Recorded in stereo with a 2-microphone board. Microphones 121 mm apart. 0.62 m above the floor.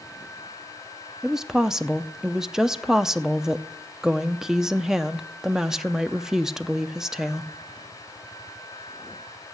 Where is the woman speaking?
5° right (ahead or behind), 0.6 m.